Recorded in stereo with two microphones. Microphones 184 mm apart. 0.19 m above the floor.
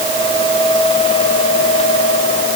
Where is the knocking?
No knocking in this recording.